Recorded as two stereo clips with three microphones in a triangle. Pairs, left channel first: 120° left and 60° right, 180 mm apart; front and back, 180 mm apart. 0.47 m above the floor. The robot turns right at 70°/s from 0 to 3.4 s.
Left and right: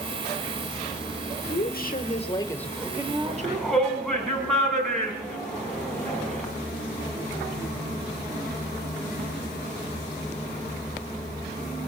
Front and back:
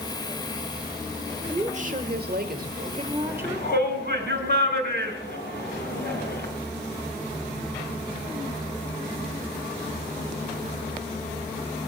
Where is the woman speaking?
120° left, 1.2 m; by 3.7 s 105° right, 1.2 m.